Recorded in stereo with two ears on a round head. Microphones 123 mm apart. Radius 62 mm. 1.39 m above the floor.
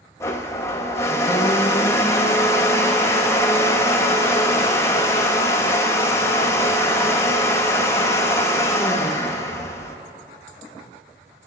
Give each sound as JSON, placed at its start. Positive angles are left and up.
{"t": 0.2, "sound": "a blender", "side_deg": 20, "distance_m": 0.7}